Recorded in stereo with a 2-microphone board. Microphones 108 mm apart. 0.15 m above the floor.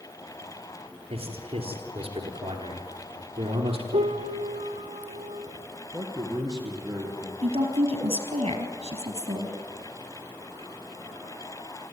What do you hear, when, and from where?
1.1 s a man speaking: 60° right (ahead or behind), 3.5 m
3.9 s a piano: 80° right, 1.4 m
5.9 s a man speaking: 30° right (ahead or behind), 3.5 m
7.4 s a woman speaking: 70° right (ahead or behind), 3 m